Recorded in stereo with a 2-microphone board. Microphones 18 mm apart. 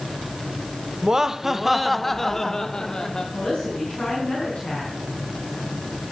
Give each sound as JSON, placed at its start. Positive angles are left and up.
{"t": 1.0, "sound": "laughter", "side_deg": -40, "distance_m": 0.9}
{"t": 3.3, "sound": "a woman speaking", "side_deg": 55, "distance_m": 4.5}